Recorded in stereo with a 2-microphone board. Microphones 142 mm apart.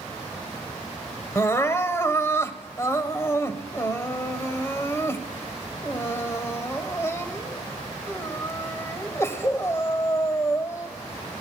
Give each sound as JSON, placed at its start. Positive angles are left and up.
{"t": 1.4, "sound": "crying", "side_deg": 20, "distance_m": 1.5}